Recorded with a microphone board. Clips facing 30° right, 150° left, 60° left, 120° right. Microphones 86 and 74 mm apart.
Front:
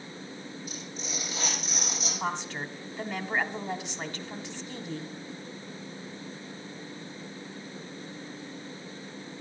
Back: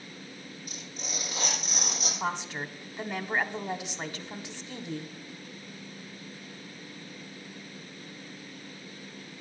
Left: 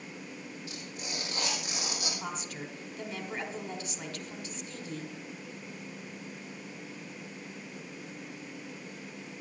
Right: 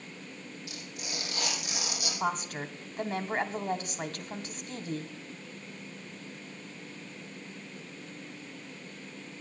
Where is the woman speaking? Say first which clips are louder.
Even, right 7 dB; 135° right, 1.1 m.